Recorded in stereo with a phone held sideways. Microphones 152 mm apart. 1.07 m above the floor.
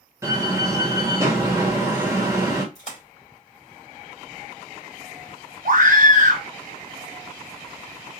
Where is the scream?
60° right (ahead or behind), 1.3 m.